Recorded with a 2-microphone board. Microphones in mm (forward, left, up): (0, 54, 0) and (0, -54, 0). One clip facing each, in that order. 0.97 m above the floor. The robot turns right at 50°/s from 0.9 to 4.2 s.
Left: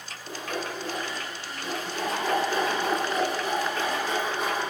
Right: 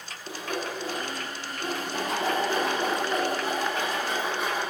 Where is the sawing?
15° right (ahead or behind), 1.7 m; by 4.6 s centre (ahead or behind), 1.7 m.